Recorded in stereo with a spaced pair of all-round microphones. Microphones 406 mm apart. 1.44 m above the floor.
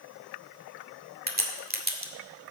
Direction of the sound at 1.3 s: 20° right (ahead or behind).